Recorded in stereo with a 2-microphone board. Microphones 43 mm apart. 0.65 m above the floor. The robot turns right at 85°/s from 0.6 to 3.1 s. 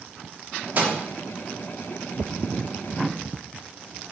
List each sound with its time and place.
0.8 s a microwave: 40° right (ahead or behind), 0.5 m